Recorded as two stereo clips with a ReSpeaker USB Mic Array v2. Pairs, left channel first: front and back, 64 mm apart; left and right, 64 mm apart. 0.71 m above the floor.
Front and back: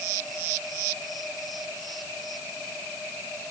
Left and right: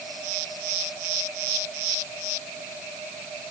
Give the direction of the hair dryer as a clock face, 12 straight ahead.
I don't hear a hair dryer.